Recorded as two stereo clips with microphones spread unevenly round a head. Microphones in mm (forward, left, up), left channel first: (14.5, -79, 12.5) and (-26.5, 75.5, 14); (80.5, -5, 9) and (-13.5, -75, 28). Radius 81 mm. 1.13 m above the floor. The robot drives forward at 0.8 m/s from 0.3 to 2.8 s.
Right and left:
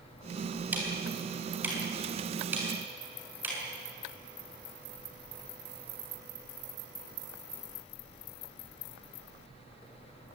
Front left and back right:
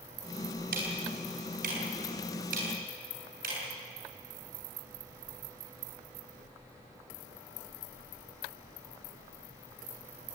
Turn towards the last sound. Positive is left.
turn(degrees=-175)